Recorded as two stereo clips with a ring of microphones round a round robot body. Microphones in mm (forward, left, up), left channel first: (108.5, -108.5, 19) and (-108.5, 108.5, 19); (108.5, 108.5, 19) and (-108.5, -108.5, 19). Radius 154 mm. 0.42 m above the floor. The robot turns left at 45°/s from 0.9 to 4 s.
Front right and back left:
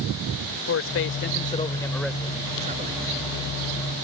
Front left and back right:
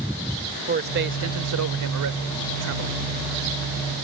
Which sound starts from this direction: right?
A man speaking, at 0.7 s.